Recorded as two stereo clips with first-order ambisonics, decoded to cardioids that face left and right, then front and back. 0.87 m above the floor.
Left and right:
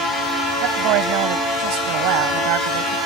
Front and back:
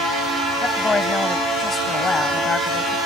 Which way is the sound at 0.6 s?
75° right.